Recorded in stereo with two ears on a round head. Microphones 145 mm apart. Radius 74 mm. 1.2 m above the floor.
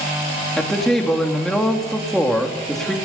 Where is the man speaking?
5° left (ahead or behind), 3 m.